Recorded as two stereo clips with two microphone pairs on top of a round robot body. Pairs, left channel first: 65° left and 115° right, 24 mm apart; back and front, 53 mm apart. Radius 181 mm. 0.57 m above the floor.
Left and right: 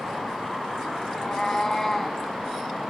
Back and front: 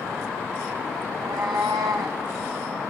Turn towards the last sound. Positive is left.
turn(degrees=-20)